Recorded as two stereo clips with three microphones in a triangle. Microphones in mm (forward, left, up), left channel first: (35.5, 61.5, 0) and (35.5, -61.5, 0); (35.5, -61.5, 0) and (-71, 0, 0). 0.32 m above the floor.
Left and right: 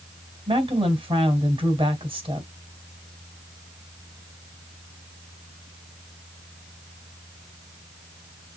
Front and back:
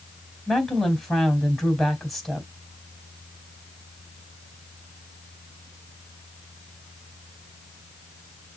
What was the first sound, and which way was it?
A woman speaking, 120° right.